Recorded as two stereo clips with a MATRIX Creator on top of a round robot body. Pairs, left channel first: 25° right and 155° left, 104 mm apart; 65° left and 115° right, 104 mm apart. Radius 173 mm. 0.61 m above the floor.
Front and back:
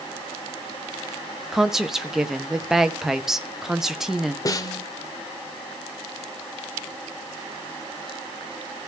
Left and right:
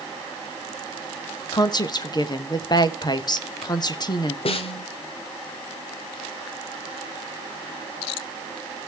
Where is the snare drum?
35° left, 0.7 m.